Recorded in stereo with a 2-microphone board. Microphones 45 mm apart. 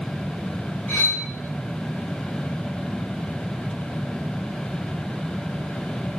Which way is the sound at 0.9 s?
25° left (ahead or behind).